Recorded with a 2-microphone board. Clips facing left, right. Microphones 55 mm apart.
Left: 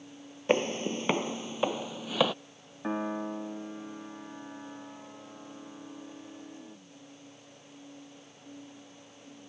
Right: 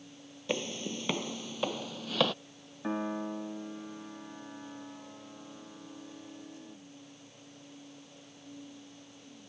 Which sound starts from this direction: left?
Footsteps, at 0.5 s.